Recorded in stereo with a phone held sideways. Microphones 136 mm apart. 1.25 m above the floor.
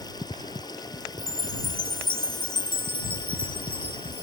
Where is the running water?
30° left (ahead or behind).